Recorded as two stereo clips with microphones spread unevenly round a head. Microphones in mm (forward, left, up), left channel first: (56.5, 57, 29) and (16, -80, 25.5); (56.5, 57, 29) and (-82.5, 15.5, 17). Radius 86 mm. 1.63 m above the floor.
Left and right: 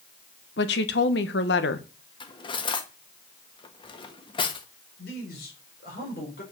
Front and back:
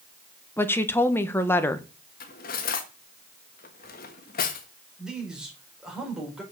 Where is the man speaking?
110° left, 5 m.